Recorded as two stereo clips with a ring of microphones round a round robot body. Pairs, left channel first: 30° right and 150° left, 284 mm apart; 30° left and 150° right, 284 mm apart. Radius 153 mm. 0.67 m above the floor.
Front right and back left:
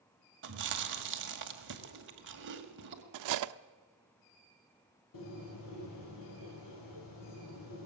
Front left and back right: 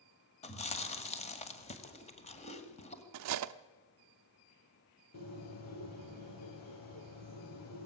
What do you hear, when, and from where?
0.4 s chewing: 100° left, 1.9 m
3.1 s cutlery clinking: 175° left, 0.6 m
5.1 s a bird: 5° right, 7.5 m